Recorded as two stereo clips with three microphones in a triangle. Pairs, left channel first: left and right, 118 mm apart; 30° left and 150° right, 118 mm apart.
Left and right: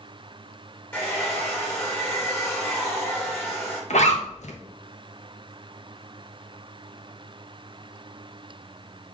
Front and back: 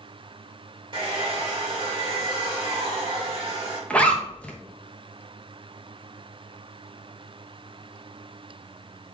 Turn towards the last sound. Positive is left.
turn(degrees=110)